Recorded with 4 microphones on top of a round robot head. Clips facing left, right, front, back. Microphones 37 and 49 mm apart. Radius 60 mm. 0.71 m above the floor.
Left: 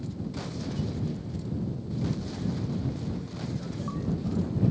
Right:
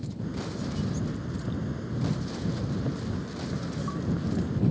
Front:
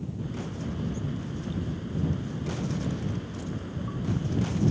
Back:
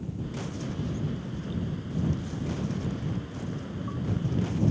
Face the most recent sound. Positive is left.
turn(degrees=-90)